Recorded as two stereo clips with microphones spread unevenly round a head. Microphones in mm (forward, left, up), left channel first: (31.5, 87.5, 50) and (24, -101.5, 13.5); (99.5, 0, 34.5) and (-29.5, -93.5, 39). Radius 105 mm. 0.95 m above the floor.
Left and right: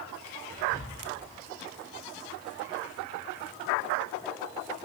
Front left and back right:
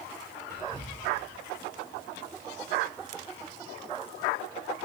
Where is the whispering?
140° right, 3.5 m.